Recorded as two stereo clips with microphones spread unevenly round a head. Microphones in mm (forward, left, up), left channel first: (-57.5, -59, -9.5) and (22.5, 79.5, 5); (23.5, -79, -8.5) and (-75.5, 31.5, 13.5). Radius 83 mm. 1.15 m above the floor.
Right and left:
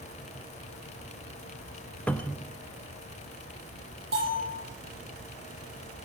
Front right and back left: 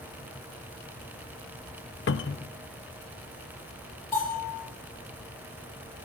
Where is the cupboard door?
35° right, 0.7 m.